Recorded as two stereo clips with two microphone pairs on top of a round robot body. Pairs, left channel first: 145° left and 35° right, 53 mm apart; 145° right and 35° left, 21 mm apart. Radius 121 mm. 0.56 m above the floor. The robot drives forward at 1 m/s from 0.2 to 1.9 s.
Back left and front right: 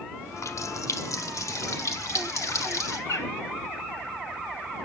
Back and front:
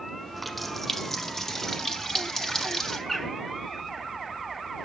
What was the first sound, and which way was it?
A running tap, 130° left.